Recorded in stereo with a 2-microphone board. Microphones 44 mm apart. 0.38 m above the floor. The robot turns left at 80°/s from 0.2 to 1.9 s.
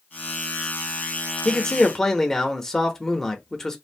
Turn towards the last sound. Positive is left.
turn(degrees=10)  # may be behind; listen again after turning